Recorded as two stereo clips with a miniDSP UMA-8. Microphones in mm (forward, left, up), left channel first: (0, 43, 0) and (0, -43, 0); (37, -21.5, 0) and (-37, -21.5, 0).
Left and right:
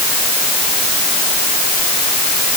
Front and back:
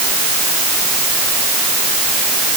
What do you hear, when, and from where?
Only background noise.